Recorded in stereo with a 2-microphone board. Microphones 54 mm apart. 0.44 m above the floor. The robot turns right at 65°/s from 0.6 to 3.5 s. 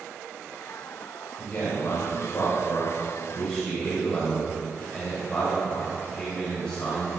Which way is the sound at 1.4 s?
30° left (ahead or behind).